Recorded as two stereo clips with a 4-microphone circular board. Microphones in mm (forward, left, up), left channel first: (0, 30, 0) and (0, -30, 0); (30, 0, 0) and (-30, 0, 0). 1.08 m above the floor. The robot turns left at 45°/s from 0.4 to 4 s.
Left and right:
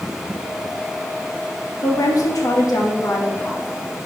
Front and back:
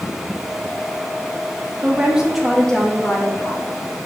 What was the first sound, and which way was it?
A woman speaking, 120° left.